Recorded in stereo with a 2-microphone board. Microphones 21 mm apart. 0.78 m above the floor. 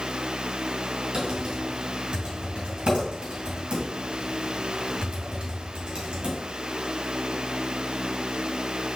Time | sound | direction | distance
1.1 | typing on a keyboard | 55° right (ahead or behind) | 2.5 m